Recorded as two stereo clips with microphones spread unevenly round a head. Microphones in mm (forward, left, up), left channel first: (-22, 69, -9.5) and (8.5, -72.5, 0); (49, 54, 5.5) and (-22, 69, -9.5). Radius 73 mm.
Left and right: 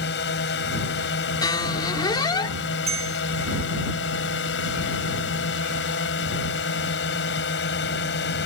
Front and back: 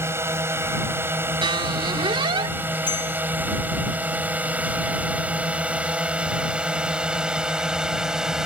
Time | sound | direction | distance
0.0 | a drone | 115° left | ?
1.4 | a squeak | 165° left | ?
2.9 | a bell | 30° right | ?